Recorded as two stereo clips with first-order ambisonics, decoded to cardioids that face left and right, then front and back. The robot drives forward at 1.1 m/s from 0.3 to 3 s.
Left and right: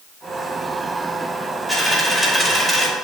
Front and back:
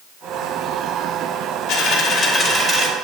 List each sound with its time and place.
1.7 s a dropped coin: 5° left, 1.3 m; by 2.9 s 175° left, 1.0 m